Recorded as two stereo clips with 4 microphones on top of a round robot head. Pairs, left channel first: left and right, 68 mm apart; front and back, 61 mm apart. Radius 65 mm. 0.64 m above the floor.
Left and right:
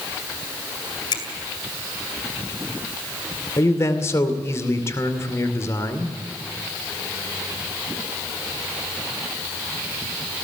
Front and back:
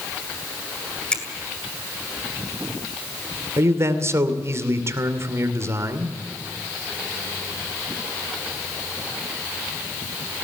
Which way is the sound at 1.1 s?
75° left.